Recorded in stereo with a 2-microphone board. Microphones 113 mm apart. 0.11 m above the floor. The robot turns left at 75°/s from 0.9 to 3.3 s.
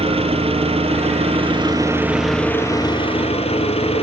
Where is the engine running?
75° right, 1.7 m; by 4.0 s 105° left, 1.7 m.